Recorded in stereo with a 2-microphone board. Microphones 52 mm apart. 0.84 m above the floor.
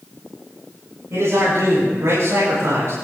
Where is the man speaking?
60° right (ahead or behind), 8.5 m; by 2.9 s 55° right (ahead or behind), 9.5 m.